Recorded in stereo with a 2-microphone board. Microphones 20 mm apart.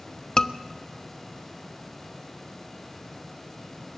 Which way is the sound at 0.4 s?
30° left (ahead or behind).